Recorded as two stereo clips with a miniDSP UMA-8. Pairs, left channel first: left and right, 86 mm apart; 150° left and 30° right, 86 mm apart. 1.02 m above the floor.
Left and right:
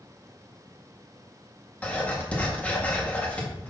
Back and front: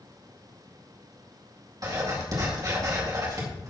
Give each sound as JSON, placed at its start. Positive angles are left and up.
{"t": 1.8, "sound": "writing", "azimuth_deg": 15, "distance_m": 2.0}